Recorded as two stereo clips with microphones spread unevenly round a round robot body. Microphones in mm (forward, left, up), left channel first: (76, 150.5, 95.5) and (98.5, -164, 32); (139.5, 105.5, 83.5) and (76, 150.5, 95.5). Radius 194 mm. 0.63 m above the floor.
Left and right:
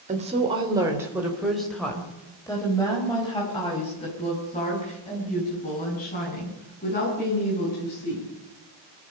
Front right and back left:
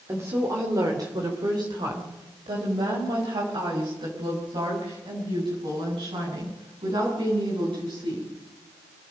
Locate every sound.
0.1 s a woman speaking: 150° right, 2.5 m; by 8.3 s 160° left, 10 m